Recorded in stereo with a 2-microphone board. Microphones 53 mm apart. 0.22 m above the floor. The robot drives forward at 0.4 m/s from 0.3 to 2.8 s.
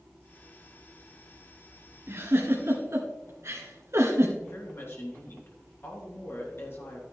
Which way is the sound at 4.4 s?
50° left (ahead or behind).